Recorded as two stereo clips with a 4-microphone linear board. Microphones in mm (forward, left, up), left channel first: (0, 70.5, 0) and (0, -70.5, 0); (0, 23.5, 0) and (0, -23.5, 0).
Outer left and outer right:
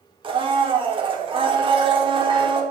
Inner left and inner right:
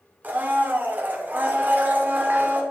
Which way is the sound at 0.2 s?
35° right (ahead or behind).